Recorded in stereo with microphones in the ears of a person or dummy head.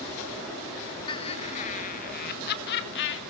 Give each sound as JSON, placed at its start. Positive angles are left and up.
{"t": 1.1, "sound": "laughter", "side_deg": 25, "distance_m": 1.6}